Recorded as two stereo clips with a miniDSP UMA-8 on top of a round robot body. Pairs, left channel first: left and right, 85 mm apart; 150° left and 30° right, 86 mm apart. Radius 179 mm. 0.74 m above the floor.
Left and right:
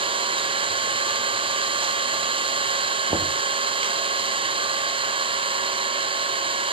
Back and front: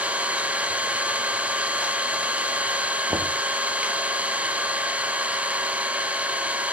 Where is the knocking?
75° right, 1.5 m.